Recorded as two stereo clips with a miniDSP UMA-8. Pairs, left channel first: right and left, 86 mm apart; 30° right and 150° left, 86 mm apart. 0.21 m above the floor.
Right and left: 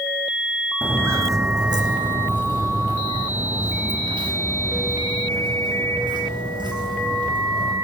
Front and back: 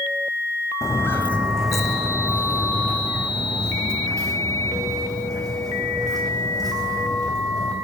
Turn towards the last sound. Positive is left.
turn(degrees=110)